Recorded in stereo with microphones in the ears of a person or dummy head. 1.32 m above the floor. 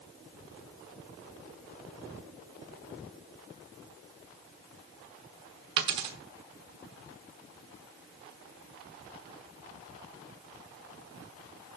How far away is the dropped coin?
About 1.1 m.